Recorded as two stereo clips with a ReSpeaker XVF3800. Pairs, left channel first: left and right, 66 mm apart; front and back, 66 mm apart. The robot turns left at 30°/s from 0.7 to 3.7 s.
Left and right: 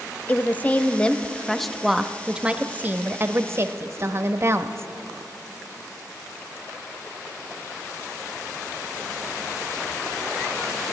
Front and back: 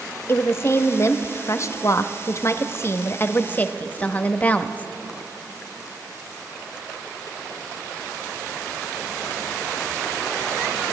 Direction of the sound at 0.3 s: 30° left.